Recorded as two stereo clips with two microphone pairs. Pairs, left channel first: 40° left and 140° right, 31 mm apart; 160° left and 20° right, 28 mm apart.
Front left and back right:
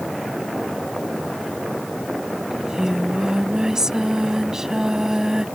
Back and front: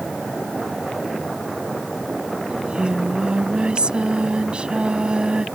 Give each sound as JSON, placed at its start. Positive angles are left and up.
{"t": 2.5, "sound": "singing", "azimuth_deg": -75}